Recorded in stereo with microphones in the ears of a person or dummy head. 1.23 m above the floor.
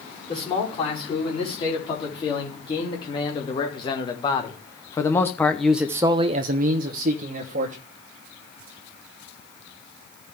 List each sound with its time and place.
0.3 s a man speaking: 30° left (ahead or behind), 4.5 m; by 7.8 s 45° right (ahead or behind), 1.3 m